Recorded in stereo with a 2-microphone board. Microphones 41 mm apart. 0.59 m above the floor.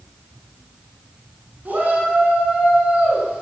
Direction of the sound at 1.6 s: 50° right (ahead or behind).